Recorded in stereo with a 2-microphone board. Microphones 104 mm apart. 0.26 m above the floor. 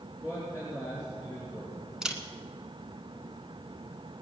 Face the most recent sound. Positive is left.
turn(degrees=-5)  # may be behind; listen again after turning